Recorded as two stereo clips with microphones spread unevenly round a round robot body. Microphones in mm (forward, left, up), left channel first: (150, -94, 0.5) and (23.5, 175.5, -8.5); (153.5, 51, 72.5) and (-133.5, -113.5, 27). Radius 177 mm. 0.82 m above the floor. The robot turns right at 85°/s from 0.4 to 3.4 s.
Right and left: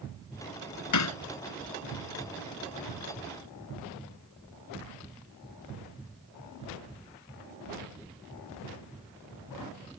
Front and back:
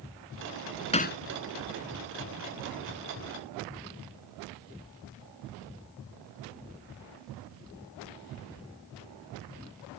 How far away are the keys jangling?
I don't hear keys jangling.